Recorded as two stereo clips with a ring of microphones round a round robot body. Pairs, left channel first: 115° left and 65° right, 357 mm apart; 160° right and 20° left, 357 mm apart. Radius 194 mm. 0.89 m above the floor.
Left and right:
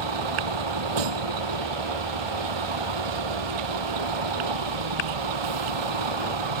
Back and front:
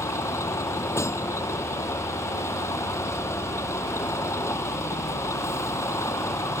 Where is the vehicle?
75° right.